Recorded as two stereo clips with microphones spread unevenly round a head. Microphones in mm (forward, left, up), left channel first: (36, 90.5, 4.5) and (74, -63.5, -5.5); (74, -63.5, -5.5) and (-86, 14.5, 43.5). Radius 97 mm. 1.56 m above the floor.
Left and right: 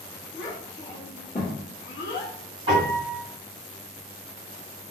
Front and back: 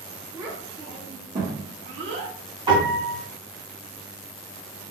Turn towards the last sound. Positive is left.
turn(degrees=-145)